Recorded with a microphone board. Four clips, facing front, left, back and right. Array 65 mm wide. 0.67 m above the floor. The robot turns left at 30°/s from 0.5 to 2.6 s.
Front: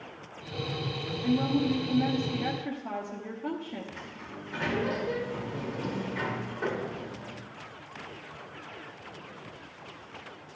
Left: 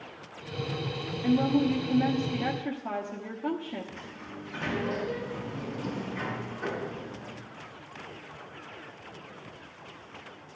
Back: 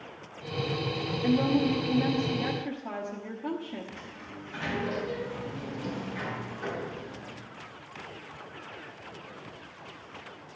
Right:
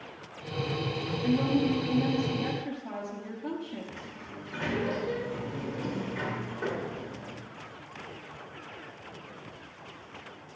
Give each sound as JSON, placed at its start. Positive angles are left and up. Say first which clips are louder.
{"t": 1.2, "sound": "a woman speaking", "louder": "left 2 dB, back 2 dB", "azimuth_deg": 130, "distance_m": 1.2}
{"t": 3.9, "sound": "a sliding door", "louder": "left 1 dB, front 1 dB", "azimuth_deg": -35, "distance_m": 2.5}